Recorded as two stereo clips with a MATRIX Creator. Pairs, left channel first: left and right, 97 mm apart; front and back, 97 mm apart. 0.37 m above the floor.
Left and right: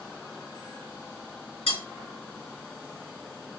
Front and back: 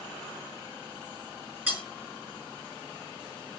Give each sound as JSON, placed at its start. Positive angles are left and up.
{"t": 1.7, "sound": "cutlery clinking", "azimuth_deg": 105, "distance_m": 3.0}